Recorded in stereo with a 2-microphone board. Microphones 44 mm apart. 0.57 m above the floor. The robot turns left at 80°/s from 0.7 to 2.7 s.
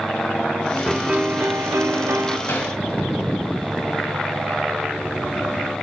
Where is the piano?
5° right, 1.1 m; by 2.4 s 125° right, 1.1 m.